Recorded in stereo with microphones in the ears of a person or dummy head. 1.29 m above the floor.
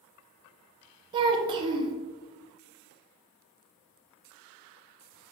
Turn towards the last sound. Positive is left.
turn(degrees=-25)  # may be behind; listen again after turning